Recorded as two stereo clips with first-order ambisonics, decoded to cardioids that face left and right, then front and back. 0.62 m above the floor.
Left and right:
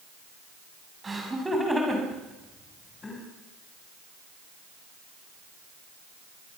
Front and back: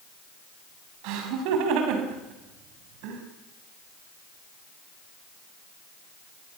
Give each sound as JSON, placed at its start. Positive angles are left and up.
{"t": 1.0, "sound": "laughter", "azimuth_deg": -165, "distance_m": 5.5}